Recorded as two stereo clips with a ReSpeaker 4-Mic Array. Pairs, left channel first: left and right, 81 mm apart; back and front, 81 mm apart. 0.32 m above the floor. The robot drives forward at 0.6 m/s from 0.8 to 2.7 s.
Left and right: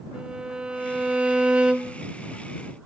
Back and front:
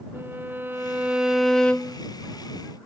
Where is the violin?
25° right, 0.9 m; by 2.0 s 155° right, 0.9 m.